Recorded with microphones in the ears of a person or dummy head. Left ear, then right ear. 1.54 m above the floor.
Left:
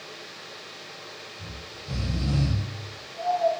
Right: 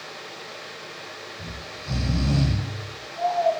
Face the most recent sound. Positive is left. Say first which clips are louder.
# right 4 dB
turn(degrees=-45)  # may be behind; listen again after turning